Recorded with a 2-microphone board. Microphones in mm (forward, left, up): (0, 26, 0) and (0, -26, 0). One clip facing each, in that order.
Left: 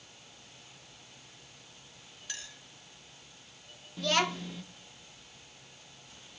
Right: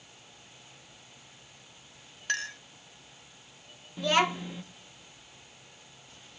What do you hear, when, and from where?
2.3 s a clink: 55° right (ahead or behind), 0.7 m
4.0 s a child speaking: 15° right (ahead or behind), 0.6 m